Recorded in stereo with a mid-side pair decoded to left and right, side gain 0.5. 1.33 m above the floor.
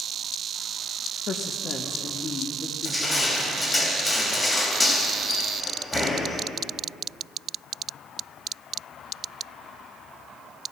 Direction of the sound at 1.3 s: 55° left.